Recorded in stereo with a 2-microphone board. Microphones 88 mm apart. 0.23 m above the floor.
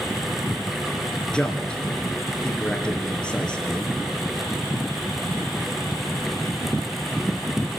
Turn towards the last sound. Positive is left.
turn(degrees=10)  # may be behind; listen again after turning